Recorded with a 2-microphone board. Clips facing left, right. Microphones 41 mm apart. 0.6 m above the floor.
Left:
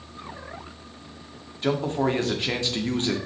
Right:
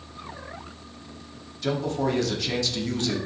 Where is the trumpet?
I don't hear a trumpet.